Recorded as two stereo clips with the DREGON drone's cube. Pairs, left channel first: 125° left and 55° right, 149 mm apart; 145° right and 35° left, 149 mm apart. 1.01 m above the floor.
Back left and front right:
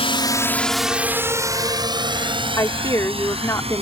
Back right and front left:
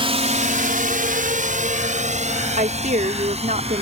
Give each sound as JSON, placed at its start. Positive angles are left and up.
{"t": 0.0, "sound": "a drone", "azimuth_deg": 80}
{"t": 2.6, "sound": "a woman speaking", "azimuth_deg": 55}